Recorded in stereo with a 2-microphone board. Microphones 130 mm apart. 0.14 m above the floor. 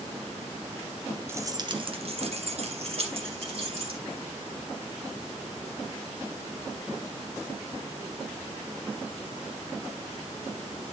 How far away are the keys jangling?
About 1.5 m.